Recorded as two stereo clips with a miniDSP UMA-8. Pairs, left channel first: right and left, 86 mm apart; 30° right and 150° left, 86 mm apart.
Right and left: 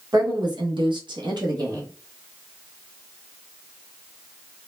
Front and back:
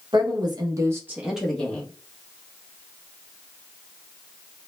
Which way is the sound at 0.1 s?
130° left.